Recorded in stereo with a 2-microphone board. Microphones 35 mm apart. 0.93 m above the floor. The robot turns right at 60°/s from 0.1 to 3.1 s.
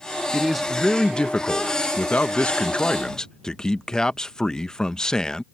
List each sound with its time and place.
0.3 s a man speaking: 15° right; by 5.4 s 150° left